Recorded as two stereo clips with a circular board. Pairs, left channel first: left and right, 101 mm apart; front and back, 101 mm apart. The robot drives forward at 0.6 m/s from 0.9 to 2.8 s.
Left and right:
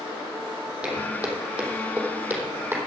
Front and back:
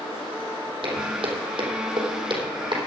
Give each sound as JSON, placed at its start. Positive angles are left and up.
{"t": 0.8, "sound": "footsteps", "azimuth_deg": -170, "distance_m": 3.5}